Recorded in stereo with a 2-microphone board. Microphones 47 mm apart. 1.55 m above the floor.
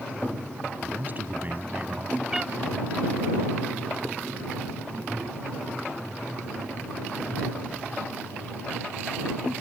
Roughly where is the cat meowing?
Centre.